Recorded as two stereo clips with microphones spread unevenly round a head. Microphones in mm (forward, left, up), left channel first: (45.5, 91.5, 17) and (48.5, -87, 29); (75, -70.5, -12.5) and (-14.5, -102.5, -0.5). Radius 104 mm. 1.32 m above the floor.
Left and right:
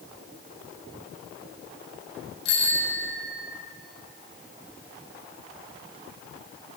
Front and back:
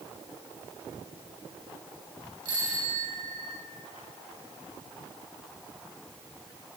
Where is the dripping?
No dripping in this recording.